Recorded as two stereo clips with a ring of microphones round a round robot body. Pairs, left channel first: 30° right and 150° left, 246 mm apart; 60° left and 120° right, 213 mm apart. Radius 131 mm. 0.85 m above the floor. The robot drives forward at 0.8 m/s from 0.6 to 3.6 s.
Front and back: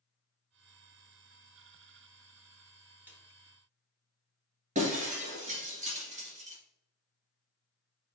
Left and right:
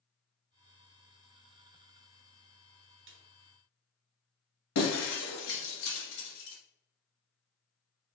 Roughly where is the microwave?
I don't hear a microwave.